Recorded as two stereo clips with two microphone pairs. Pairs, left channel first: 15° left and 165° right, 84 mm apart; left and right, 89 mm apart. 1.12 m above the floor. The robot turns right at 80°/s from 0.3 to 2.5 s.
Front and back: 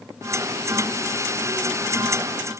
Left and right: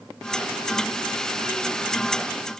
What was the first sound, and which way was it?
Only background noise.